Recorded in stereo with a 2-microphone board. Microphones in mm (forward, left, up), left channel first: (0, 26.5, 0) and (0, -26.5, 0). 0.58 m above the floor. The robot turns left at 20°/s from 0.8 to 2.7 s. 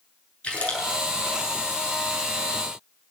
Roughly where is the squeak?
No squeak in this recording.